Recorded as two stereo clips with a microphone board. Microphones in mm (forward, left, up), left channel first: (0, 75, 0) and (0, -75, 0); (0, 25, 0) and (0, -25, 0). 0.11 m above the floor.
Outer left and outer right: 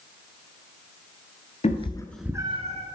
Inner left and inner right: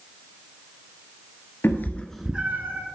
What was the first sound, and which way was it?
A cat meowing, 50° left (ahead or behind).